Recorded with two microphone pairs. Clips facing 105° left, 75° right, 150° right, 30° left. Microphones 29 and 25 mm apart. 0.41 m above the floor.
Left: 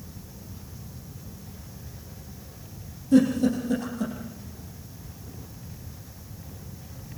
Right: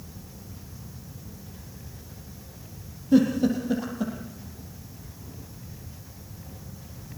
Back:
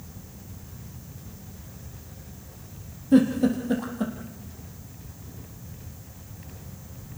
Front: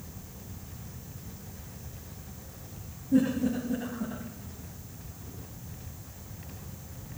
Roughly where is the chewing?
I don't hear chewing.